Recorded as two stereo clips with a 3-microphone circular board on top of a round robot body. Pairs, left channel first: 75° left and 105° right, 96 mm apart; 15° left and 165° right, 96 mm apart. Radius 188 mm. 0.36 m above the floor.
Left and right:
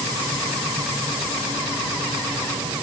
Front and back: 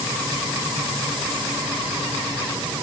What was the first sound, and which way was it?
Only background noise.